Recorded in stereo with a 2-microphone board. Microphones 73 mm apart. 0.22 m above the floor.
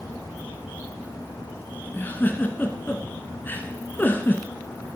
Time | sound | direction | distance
1.9 | a giggle | 30° left (ahead or behind) | 1.1 m